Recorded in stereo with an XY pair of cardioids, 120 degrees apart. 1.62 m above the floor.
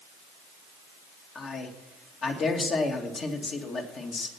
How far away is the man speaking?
About 2.5 m.